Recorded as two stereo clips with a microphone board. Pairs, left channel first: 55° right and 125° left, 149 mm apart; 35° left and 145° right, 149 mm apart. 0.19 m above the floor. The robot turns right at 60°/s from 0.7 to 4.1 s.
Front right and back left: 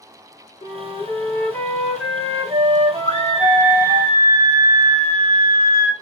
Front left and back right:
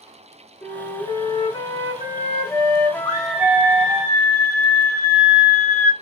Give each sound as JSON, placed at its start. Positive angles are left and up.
{"t": 0.6, "sound": "a flute", "azimuth_deg": -30, "distance_m": 0.8}
{"t": 3.0, "sound": "a scream", "azimuth_deg": -40, "distance_m": 2.0}